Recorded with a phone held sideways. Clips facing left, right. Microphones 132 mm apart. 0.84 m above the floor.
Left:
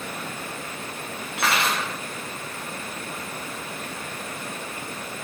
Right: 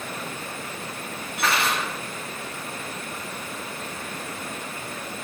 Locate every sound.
1.4 s cutlery clinking: 85° left, 0.9 m